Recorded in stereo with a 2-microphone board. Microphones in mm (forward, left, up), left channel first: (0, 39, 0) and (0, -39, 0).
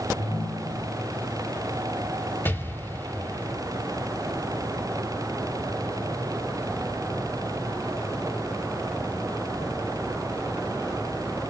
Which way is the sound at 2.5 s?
25° left (ahead or behind).